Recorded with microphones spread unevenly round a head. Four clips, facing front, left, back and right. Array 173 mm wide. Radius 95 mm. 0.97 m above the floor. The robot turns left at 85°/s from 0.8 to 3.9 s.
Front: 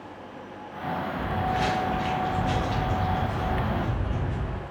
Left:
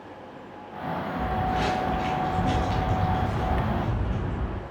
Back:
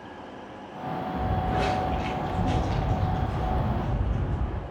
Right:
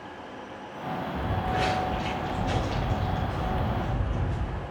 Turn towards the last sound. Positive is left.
turn(degrees=45)